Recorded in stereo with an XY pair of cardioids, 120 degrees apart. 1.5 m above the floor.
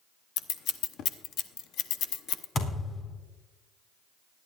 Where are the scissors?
70° left, 0.9 m.